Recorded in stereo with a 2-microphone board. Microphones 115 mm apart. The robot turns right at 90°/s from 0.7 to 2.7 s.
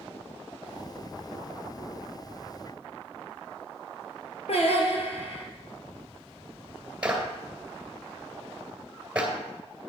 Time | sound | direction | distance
4.5 | singing | 65° left (ahead or behind) | 2 m
7.0 | a clap | 10° right (ahead or behind) | 2.5 m